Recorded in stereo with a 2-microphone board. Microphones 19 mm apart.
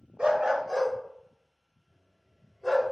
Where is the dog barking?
65° right (ahead or behind), 0.5 m; by 2.9 s 40° right (ahead or behind), 2.5 m.